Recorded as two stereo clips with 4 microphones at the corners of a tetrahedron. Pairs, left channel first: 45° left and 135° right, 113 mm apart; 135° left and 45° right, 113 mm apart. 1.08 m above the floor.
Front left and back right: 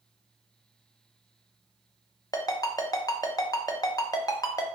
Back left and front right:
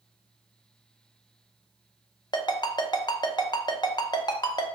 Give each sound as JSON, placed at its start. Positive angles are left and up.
{"t": 2.3, "sound": "a ringtone", "azimuth_deg": 90, "distance_m": 0.6}